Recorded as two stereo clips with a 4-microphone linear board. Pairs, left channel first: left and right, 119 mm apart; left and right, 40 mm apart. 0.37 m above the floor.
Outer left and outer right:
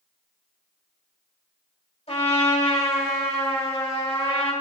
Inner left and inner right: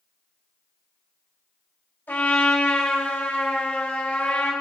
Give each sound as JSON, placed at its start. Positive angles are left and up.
{"t": 2.1, "sound": "a trumpet", "side_deg": 55, "distance_m": 3.0}